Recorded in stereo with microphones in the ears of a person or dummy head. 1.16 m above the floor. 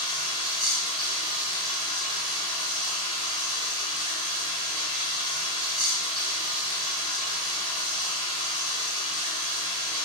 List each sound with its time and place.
0.0 s running water: 5° left (ahead or behind), 2 m